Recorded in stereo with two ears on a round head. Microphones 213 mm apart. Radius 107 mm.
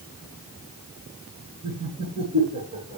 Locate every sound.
1.6 s laughter: 40° right (ahead or behind), 8 m